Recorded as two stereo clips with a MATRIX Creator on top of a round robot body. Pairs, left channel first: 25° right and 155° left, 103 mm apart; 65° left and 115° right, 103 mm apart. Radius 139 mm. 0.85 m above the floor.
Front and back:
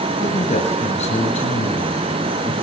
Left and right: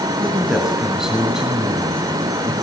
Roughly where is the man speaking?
Ahead right.